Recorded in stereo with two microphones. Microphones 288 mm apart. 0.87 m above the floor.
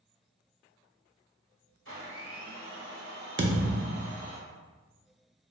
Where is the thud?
40° right (ahead or behind), 0.5 m.